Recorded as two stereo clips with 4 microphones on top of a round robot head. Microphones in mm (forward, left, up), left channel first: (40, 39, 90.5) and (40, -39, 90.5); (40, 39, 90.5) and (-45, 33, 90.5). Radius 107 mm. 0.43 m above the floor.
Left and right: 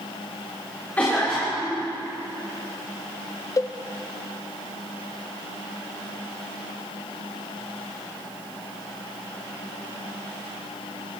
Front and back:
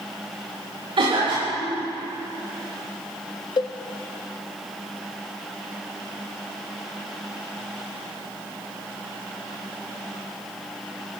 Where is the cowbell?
40° left, 0.6 m.